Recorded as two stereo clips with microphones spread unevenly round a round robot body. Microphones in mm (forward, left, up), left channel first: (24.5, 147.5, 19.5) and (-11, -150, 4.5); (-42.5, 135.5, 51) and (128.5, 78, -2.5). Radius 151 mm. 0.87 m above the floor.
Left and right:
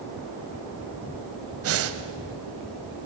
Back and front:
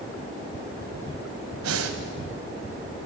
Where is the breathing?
50° right, 1.4 m.